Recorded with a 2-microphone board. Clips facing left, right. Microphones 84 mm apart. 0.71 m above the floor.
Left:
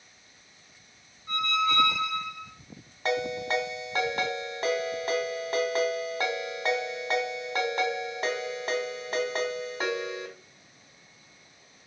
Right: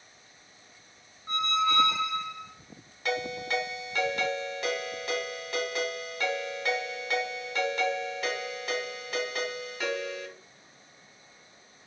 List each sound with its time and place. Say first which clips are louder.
1.3 s a squeak: even; 35° right (ahead or behind), 2 m
3.0 s a ringtone: left 3 dB; 40° left (ahead or behind), 1.0 m